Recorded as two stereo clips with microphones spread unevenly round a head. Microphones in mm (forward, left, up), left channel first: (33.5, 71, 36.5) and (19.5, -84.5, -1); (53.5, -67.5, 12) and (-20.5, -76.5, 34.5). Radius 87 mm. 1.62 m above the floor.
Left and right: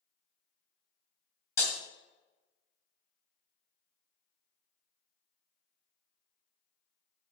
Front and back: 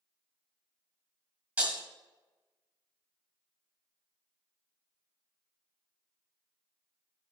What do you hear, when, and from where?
1.6 s breaking glass: 140° left, 1.9 m